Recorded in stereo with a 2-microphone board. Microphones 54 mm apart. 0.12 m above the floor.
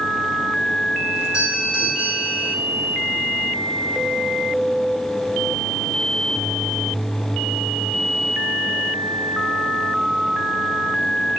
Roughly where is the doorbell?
Centre.